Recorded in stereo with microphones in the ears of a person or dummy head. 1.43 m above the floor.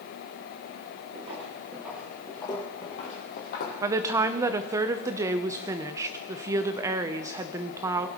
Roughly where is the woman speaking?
Centre.